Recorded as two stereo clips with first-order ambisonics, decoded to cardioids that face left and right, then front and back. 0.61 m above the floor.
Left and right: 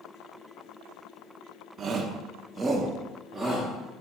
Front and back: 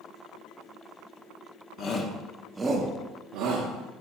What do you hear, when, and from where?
1.8 s a shout: 35° right, 1.0 m; by 3.7 s 175° left, 1.3 m